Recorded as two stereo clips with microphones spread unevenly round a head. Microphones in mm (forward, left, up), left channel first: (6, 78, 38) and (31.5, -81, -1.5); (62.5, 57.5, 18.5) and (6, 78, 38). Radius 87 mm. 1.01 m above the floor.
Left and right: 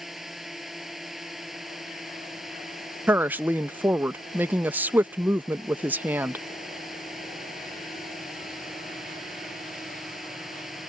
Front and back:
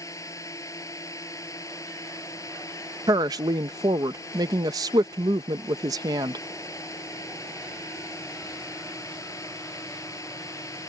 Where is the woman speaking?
155° right.